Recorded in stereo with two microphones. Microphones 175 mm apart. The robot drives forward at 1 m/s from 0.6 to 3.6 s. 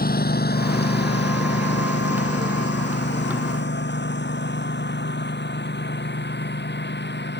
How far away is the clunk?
I don't hear a clunk.